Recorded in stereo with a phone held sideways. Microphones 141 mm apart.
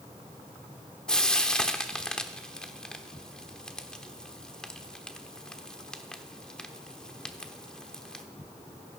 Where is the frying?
5° left (ahead or behind), 1.0 m.